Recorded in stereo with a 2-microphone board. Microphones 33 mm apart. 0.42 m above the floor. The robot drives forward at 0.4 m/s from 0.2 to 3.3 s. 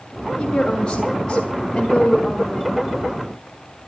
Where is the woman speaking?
20° left (ahead or behind), 1.5 m; by 2.8 s 15° left (ahead or behind), 2 m.